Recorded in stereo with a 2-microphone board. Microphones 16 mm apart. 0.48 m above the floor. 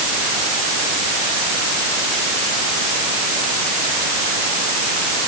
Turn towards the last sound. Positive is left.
No sound to turn to.